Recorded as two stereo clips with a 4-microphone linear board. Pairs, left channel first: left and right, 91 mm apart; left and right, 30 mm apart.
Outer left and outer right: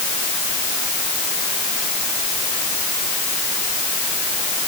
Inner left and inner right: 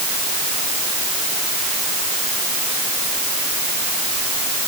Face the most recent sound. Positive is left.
No sound to turn to.